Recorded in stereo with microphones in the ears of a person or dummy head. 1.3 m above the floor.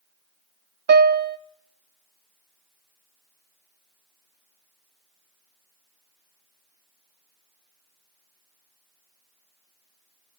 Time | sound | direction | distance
0.9 | a piano | 45° right (ahead or behind) | 0.5 m